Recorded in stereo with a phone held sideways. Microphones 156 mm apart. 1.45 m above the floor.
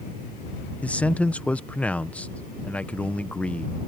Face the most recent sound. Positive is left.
turn(degrees=10)  # may be behind; listen again after turning